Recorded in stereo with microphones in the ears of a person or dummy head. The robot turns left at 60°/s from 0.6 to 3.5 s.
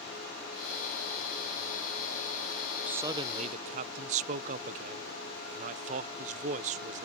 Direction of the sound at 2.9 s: 10° right.